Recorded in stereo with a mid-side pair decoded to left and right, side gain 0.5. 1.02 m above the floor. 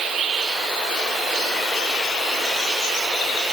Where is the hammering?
No hammering in this recording.